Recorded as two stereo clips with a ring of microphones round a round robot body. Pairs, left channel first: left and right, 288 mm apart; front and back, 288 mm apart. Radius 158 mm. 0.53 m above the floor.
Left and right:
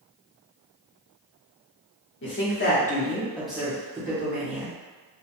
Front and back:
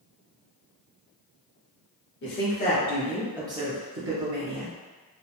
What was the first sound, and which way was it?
A woman speaking, 45° left.